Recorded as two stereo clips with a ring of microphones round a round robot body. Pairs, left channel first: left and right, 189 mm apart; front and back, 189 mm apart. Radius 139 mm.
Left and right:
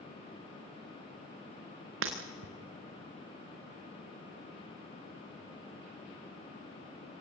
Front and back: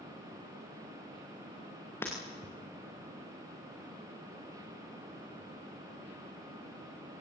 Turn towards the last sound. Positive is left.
turn(degrees=-85)